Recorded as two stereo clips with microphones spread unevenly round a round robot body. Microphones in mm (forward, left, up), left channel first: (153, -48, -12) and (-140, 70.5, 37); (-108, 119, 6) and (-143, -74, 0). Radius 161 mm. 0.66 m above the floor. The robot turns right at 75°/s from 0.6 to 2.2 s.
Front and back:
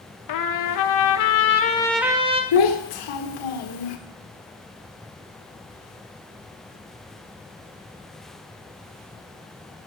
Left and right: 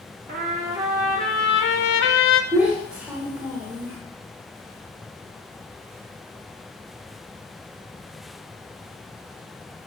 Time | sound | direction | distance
0.3 | a trumpet | 40° right | 0.5 m
2.5 | a child speaking | 15° right | 1.0 m